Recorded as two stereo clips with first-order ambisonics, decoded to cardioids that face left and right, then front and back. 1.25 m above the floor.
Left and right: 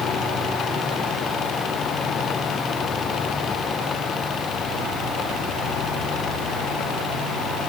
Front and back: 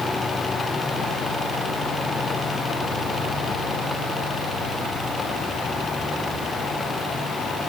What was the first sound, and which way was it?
Only background noise.